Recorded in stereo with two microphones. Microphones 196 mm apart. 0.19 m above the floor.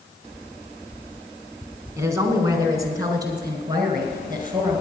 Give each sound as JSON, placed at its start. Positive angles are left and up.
{"t": 2.0, "sound": "a woman speaking", "side_deg": -15, "distance_m": 1.8}